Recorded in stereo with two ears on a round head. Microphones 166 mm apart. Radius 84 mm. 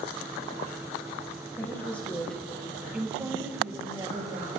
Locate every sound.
1.6 s a woman speaking: 15° left (ahead or behind), 3 m; by 4.5 s 25° right (ahead or behind), 3.5 m